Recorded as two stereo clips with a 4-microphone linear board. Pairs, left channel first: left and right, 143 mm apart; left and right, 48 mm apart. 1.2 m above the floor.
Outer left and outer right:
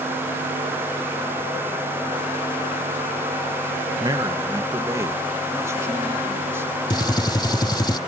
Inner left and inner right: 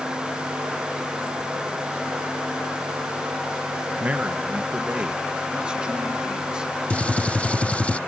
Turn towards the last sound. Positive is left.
turn(degrees=30)  # may be behind; listen again after turning